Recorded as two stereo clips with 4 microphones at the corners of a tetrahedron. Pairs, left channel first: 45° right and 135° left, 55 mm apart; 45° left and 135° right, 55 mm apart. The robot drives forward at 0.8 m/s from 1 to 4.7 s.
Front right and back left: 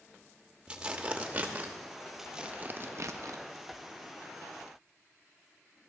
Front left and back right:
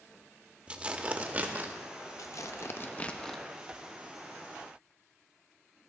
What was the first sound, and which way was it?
Tearing paper, 175° right.